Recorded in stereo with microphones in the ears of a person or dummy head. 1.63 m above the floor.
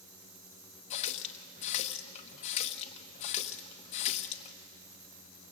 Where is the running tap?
35° left (ahead or behind), 1.0 m.